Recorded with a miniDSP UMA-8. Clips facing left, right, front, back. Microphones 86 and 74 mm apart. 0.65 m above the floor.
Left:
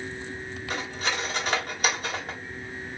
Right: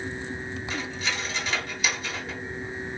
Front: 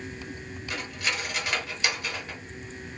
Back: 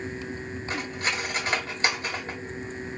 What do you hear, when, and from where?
0.7 s cutlery clinking: 125° left, 1.5 m